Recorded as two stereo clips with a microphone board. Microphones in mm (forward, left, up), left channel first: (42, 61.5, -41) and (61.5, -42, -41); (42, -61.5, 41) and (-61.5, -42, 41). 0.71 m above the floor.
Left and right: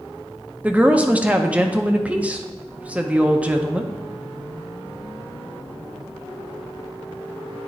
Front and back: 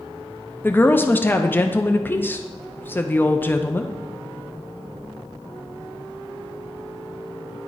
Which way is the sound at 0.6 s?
35° right.